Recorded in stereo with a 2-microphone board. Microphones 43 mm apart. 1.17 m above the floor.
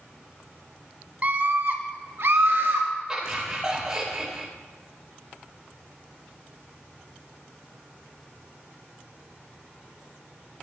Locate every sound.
1.2 s a scream: 35° right (ahead or behind), 0.9 m; by 2.9 s 70° right (ahead or behind), 2 m
3.1 s laughter: 20° right (ahead or behind), 2.5 m